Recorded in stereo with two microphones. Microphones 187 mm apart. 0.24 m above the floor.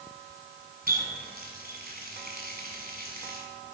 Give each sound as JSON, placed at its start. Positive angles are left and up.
{"t": 0.9, "sound": "a running tap", "side_deg": -55, "distance_m": 1.5}